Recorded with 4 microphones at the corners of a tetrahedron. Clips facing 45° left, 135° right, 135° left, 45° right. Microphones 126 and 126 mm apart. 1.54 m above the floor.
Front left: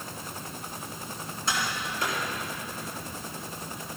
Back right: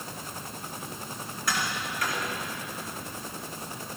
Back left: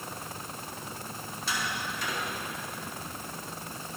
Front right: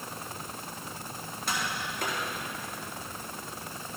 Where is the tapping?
15° right, 4 m.